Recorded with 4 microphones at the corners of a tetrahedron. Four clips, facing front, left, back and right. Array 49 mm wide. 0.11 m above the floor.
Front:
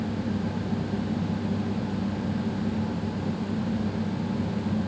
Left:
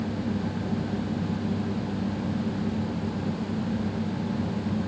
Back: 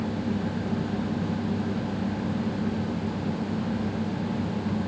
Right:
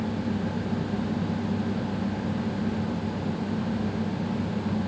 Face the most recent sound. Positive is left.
No sound to turn to.